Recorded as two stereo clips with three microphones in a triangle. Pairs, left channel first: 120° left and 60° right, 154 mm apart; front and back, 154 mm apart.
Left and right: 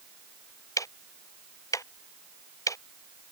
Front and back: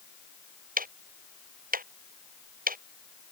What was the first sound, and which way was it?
Ticking, 170° right.